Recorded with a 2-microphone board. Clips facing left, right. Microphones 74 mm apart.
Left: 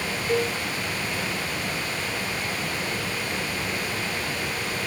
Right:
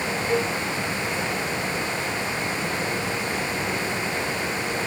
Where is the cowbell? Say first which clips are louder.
Even; 15° left (ahead or behind), 1.9 m.